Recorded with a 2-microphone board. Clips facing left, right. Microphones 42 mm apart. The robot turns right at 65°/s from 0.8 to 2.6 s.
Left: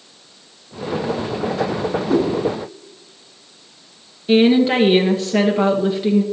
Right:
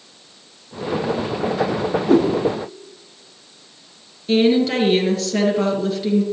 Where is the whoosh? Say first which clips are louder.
Right 3 dB; 55° right (ahead or behind), 3 m; by 2.3 s 65° right (ahead or behind), 3 m.